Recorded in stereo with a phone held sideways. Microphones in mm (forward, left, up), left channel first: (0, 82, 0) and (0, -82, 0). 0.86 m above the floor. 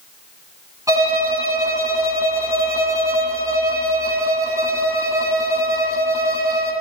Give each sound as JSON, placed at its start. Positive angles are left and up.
{"t": 0.9, "sound": "a violin", "side_deg": -20, "distance_m": 9.5}